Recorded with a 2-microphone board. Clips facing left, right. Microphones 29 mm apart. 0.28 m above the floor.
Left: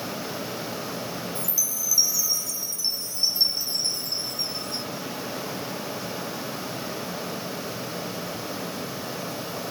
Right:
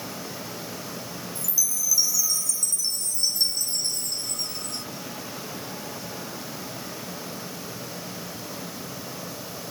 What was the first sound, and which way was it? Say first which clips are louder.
A chime: right 1 dB; 25° left (ahead or behind).